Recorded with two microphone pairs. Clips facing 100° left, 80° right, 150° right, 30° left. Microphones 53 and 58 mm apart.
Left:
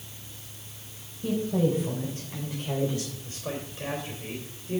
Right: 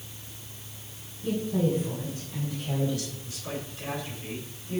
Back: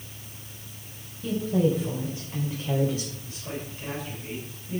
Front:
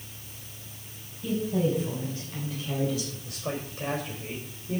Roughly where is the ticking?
No ticking in this recording.